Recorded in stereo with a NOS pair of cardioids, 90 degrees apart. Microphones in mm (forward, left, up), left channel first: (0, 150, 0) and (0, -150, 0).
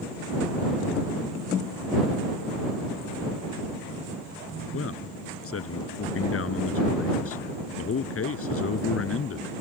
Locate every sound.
4.7 s a man speaking: 50° left